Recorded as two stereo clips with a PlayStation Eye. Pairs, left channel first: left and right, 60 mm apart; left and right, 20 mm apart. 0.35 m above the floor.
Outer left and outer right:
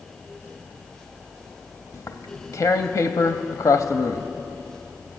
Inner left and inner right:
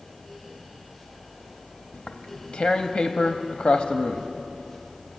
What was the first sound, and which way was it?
Tearing paper, 65° left (ahead or behind).